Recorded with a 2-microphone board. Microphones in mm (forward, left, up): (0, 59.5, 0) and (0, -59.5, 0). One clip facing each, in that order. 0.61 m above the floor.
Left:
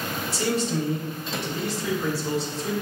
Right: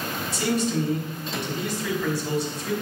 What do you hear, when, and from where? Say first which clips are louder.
0.3 s a man speaking: right 1 dB; 30° left (ahead or behind), 3 m